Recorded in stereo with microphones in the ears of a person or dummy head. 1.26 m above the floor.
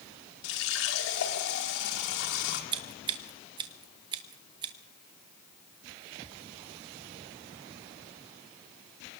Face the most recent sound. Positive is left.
turn(degrees=-25)  # may be behind; listen again after turning